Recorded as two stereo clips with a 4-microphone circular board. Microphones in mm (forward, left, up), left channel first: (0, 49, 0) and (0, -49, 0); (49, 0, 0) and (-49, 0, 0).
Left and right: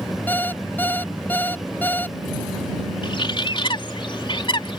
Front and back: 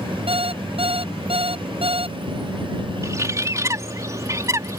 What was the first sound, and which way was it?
An alarm clock, 160° left.